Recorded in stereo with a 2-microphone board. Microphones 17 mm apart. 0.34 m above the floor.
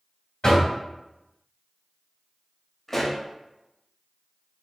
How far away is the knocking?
About 1.4 m.